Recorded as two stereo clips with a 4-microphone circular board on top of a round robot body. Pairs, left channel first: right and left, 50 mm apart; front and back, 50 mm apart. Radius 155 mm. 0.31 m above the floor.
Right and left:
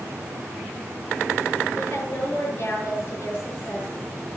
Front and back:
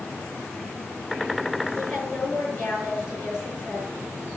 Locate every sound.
1.8 s a woman speaking: 45° right, 7 m